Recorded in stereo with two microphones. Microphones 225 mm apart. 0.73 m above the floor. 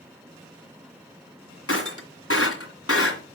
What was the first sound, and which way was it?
Breaking glass, 80° left.